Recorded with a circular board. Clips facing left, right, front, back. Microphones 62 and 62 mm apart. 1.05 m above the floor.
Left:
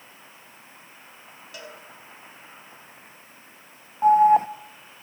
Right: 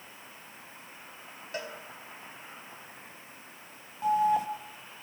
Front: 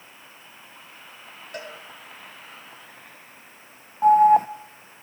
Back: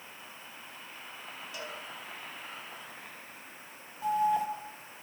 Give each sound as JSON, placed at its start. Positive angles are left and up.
{"t": 1.5, "sound": "a cowbell", "azimuth_deg": -40, "distance_m": 4.0}
{"t": 4.0, "sound": "an alarm", "azimuth_deg": 40, "distance_m": 1.1}